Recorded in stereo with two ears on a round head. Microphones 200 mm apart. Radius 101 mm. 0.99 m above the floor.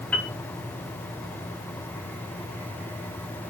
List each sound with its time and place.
0.1 s a piano: 5° left (ahead or behind), 0.6 m